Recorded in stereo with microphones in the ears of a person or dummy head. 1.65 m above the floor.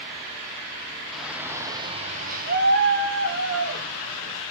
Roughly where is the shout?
Centre.